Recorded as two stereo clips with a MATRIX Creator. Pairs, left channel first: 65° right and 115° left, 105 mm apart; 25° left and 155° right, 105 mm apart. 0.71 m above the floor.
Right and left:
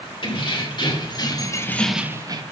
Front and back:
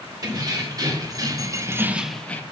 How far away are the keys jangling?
About 1.9 m.